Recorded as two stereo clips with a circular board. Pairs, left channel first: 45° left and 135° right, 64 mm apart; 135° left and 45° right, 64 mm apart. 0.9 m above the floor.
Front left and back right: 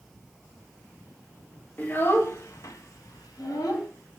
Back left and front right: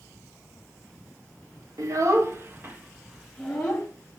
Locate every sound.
1.8 s a child speaking: 15° right, 1.1 m; by 3.9 s 65° left, 1.1 m